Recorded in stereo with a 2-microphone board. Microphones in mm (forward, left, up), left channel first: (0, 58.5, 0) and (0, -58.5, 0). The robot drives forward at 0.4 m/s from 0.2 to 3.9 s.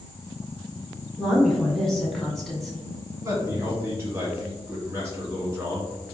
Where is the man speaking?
25° right (ahead or behind), 1.8 m.